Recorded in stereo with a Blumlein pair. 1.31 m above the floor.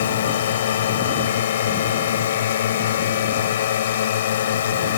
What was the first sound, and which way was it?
A drone, 60° left.